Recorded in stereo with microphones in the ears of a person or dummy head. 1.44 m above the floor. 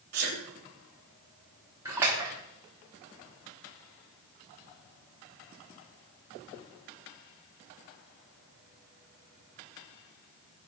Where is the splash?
10° right (ahead or behind), 0.9 m.